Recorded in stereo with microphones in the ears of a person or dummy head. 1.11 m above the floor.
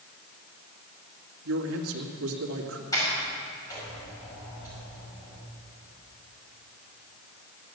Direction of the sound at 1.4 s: 75° right (ahead or behind).